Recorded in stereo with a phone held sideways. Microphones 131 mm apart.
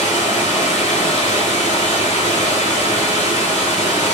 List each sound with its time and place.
0.0 s running water: 70° left (ahead or behind), 2 m